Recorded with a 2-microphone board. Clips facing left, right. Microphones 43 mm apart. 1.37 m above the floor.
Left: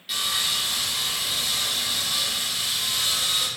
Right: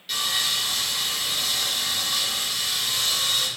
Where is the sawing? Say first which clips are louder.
Right 1 dB; 5° left (ahead or behind), 4.5 m.